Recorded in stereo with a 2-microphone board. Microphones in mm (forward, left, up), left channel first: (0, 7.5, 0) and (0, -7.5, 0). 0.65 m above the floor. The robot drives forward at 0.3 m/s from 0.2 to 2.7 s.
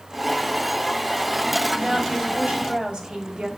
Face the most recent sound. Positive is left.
turn(degrees=-65)  # may be behind; listen again after turning